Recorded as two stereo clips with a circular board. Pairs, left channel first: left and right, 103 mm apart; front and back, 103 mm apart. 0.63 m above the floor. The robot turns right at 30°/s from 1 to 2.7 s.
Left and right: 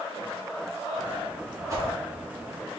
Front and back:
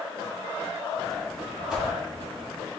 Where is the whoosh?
105° right, 1.2 m; by 1.9 s 100° right, 1.2 m.